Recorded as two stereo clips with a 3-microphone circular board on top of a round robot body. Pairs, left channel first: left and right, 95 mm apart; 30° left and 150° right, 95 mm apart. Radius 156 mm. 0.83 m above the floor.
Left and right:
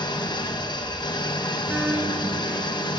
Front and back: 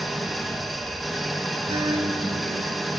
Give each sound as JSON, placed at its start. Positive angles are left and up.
{"t": 0.0, "sound": "an engine running", "azimuth_deg": 120, "distance_m": 0.9}
{"t": 1.7, "sound": "a guitar", "azimuth_deg": -160, "distance_m": 4.5}